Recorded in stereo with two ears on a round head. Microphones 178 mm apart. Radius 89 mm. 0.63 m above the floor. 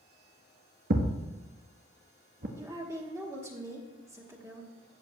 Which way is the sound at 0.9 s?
50° right (ahead or behind).